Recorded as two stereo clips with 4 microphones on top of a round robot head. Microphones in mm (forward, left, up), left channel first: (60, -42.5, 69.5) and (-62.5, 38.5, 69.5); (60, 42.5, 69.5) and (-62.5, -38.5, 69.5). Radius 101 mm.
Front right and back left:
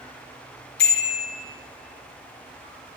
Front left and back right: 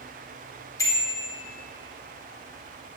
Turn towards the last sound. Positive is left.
turn(degrees=-35)